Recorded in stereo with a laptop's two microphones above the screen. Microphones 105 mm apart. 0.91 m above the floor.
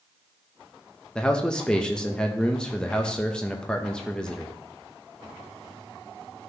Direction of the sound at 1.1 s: 5° left (ahead or behind).